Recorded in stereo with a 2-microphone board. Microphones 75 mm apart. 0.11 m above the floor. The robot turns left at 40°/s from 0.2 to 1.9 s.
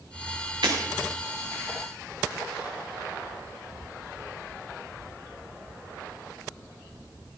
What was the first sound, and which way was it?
Breaking glass, 85° right.